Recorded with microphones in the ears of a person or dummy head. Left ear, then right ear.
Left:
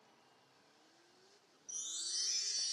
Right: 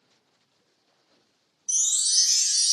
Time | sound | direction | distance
1.7 | a chime | 85° right | 0.6 m